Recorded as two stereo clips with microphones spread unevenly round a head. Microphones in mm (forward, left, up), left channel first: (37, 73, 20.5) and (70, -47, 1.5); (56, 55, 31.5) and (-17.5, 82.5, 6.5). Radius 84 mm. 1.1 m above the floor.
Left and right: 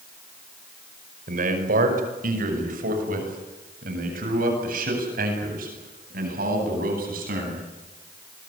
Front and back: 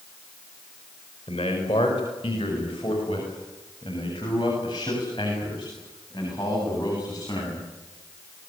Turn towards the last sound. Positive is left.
turn(degrees=-90)